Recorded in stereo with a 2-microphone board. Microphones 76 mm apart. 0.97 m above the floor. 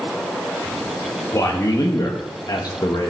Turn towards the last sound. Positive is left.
turn(degrees=65)  # may be behind; listen again after turning